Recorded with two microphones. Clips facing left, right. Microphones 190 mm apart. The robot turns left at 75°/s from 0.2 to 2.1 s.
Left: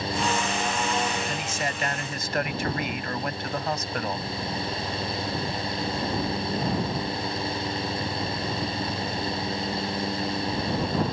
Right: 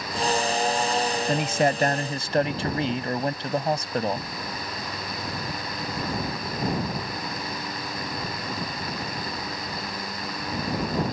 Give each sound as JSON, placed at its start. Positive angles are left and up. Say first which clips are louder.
{"t": 1.3, "sound": "a man speaking", "louder": "right 8 dB", "azimuth_deg": -80}